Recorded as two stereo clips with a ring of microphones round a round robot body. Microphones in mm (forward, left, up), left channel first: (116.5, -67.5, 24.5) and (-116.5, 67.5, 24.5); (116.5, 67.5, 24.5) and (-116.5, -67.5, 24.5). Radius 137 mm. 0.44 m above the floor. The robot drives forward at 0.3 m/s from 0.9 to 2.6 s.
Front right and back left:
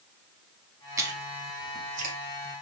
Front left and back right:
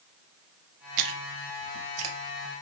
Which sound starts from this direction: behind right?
Chewing, at 1.0 s.